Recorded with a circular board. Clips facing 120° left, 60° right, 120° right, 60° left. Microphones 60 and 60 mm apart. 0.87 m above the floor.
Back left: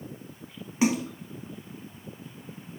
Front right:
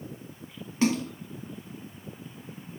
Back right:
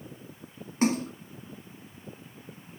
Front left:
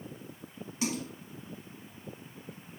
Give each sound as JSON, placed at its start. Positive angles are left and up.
{"t": 0.8, "sound": "a splash", "azimuth_deg": -165, "distance_m": 1.3}